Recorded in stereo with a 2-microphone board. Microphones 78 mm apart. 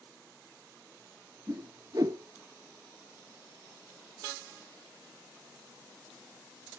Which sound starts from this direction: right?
A whoosh, at 1.5 s.